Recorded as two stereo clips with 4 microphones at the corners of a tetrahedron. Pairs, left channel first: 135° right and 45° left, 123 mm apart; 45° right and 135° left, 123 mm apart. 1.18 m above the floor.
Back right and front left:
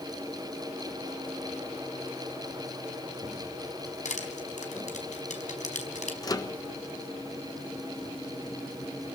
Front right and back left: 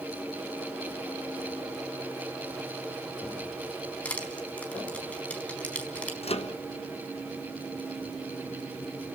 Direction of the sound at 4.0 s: 125° right.